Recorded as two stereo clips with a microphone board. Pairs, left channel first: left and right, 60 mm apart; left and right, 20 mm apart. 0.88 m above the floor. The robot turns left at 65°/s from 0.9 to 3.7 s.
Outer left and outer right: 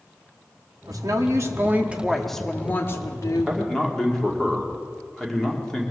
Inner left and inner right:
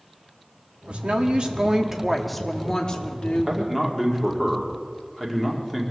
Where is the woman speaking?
95° right, 1.4 m; by 3.6 s 95° left, 1.4 m.